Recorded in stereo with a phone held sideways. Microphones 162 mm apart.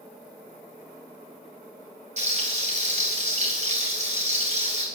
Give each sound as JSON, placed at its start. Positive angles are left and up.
{"t": 2.2, "sound": "frying", "side_deg": -45, "distance_m": 4.5}